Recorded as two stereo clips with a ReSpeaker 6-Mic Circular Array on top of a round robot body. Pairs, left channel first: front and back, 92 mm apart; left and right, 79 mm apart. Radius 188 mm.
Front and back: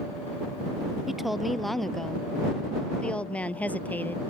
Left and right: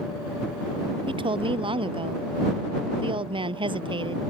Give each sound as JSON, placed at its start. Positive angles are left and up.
{"t": 1.1, "sound": "a woman speaking", "azimuth_deg": -95}